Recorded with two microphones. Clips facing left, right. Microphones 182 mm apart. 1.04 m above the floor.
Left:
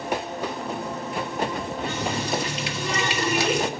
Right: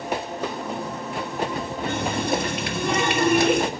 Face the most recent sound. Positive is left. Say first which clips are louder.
# right 4 dB
turn(degrees=-55)  # may be behind; listen again after turning